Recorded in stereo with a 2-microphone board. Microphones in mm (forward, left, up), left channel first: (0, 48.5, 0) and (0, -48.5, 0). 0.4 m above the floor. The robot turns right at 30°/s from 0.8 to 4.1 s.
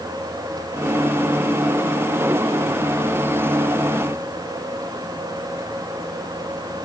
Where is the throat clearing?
No throat clearing in this recording.